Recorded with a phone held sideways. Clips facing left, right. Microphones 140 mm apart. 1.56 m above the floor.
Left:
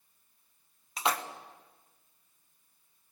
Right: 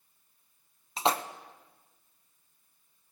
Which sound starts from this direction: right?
A splash, at 1.0 s.